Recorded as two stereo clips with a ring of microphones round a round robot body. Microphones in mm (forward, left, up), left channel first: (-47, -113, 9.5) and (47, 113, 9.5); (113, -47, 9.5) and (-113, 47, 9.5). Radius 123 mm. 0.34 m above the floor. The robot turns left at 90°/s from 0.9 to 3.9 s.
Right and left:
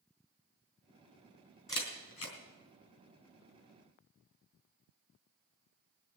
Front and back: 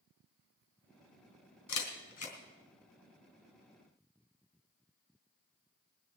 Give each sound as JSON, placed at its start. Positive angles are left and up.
{"t": 1.7, "sound": "a camera shutter", "azimuth_deg": -35, "distance_m": 3.0}